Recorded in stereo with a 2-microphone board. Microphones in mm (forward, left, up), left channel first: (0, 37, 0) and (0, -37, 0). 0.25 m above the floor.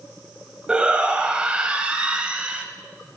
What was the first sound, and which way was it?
A shout, 15° right (ahead or behind).